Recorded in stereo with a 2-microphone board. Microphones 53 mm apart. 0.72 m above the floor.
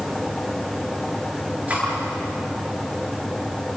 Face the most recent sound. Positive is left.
turn(degrees=-25)  # may be behind; listen again after turning